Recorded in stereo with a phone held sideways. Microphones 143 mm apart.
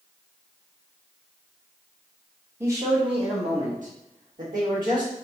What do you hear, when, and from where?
2.6 s a man speaking: 15° right (ahead or behind), 1.1 m; by 5.2 s 70° right (ahead or behind), 2 m